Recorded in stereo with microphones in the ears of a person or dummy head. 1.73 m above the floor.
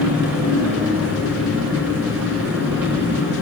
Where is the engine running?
85° right, 6.5 m.